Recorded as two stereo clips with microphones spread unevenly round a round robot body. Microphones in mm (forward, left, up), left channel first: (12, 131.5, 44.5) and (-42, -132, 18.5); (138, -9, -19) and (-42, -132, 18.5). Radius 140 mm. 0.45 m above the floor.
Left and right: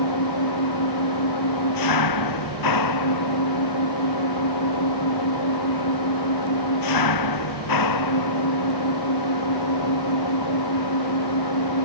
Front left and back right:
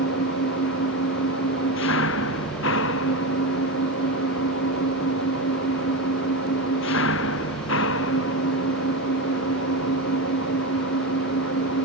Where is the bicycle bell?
No bicycle bell in this recording.